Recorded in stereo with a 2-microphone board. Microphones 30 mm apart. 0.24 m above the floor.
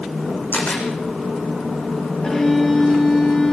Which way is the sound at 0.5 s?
65° left (ahead or behind).